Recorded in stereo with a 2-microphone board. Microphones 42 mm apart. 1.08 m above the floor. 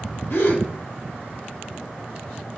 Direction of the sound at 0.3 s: 60° left (ahead or behind).